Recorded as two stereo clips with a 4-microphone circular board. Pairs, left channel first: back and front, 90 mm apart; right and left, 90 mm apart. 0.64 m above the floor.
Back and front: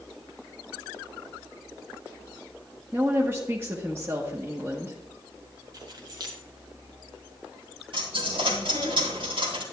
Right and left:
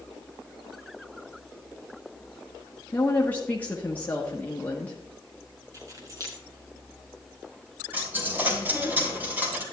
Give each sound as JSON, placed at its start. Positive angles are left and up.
{"t": 2.9, "sound": "a woman speaking", "azimuth_deg": -35, "distance_m": 1.2}
{"t": 5.7, "sound": "keys jangling", "azimuth_deg": 40, "distance_m": 2.5}
{"t": 7.9, "sound": "a dropped coin", "azimuth_deg": 20, "distance_m": 3.0}